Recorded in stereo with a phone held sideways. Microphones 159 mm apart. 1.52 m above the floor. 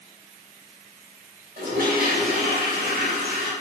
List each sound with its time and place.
1.6 s a toilet flushing: 65° right (ahead or behind), 2.5 m